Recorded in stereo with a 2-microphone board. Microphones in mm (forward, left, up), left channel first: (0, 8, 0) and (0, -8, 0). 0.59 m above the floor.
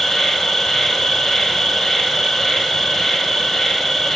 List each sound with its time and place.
0.0 s an insect: 40° left (ahead or behind), 0.8 m